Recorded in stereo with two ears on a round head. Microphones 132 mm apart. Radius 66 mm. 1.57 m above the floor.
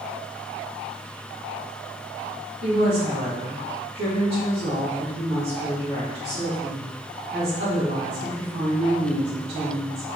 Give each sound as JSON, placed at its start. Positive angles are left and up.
{"t": 2.6, "sound": "a woman speaking", "side_deg": -75, "distance_m": 2.0}